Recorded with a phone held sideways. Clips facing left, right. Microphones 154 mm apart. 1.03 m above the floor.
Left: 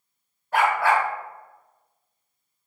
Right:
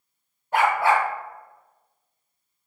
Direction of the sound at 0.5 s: 20° right (ahead or behind).